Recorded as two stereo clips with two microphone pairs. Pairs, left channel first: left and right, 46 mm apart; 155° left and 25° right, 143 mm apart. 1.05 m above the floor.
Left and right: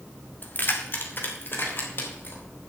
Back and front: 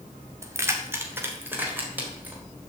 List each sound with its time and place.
0.4 s keys jangling: 45° left, 1.8 m; by 2.4 s 55° left, 4 m